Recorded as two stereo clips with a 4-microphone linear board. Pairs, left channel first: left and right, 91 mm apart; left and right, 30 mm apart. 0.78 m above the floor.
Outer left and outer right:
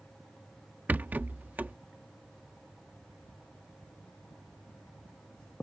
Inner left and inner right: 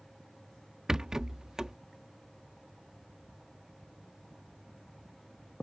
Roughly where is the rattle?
Centre.